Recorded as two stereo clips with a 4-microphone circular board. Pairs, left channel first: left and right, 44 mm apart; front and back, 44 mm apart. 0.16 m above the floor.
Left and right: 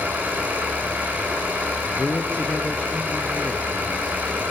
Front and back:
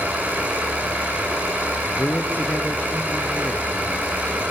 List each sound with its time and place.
0.0 s an engine running: 140° right, 9.5 m
2.0 s a man speaking: 35° left, 2 m